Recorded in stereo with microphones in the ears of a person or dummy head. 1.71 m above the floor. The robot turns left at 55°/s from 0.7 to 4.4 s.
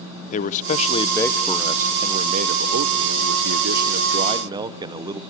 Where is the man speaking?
50° left, 0.9 m; by 5.2 s 155° right, 0.9 m.